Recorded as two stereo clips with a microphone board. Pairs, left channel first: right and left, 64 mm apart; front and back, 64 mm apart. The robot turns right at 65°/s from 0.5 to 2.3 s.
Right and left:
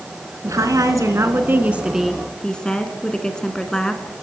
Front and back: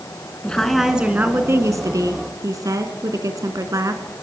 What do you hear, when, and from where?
0.4 s a woman speaking: 75° left, 2.5 m; by 4.0 s 170° right, 2.5 m